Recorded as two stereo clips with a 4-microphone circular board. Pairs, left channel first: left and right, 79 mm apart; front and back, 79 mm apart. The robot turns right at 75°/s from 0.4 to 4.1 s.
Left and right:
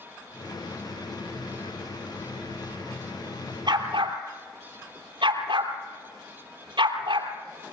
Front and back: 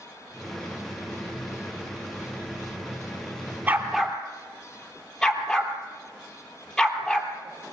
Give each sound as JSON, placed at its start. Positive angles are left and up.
{"t": 3.7, "sound": "a dog barking", "azimuth_deg": -115, "distance_m": 3.0}